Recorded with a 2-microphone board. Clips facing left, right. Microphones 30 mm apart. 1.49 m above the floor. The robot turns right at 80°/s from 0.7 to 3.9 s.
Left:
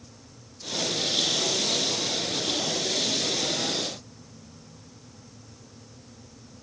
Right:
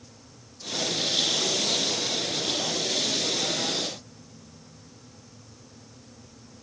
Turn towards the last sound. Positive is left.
No sound to turn to.